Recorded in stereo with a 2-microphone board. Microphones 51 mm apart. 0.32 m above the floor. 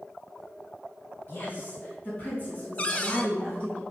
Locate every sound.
1.3 s a woman speaking: 40° left (ahead or behind), 3 m; by 3.8 s 25° left (ahead or behind), 4.5 m
2.8 s a cupboard door: 25° left (ahead or behind), 0.8 m